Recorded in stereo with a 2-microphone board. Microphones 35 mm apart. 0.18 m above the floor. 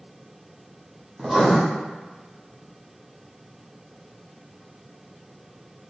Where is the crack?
No crack in this recording.